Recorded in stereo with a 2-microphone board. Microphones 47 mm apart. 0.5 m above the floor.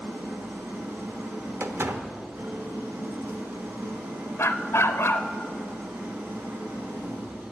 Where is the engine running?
65° right (ahead or behind), 1.9 m.